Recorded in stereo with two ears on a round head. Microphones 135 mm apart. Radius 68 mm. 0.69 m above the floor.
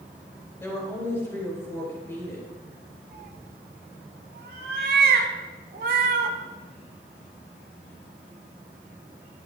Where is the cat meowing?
65° right (ahead or behind), 1.3 m.